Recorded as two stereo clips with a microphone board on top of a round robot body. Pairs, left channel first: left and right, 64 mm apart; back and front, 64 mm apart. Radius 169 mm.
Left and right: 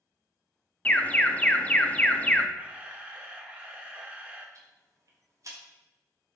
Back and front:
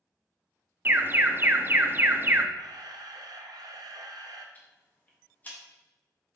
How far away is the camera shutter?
About 0.8 m.